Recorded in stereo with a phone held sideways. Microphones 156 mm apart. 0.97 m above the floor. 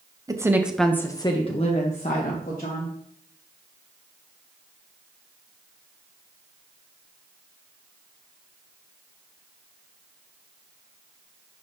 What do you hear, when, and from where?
0.3 s a woman speaking: 25° right (ahead or behind), 0.8 m; by 2.9 s 60° left (ahead or behind), 1.6 m